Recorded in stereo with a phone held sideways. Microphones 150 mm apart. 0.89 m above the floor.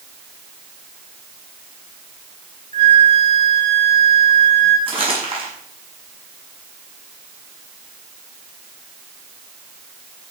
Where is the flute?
50° right (ahead or behind), 3 m.